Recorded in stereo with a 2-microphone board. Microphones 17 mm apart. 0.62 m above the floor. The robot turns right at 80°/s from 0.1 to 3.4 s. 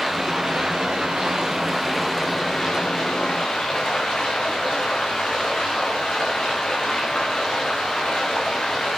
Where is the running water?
145° right, 6 m; by 9.0 s 120° left, 6 m.